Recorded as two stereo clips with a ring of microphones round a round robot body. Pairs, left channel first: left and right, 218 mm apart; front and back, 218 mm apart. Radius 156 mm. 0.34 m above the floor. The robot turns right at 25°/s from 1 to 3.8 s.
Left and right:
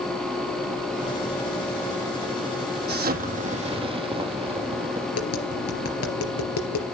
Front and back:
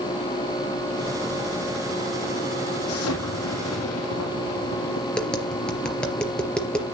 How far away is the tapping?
About 3.5 m.